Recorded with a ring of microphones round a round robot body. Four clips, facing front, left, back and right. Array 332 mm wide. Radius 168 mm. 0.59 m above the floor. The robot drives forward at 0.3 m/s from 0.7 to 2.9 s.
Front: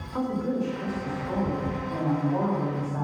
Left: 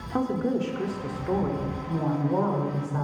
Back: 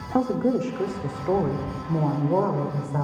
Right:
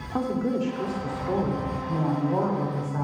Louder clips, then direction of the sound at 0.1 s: Even, back 6 dB; 165° left.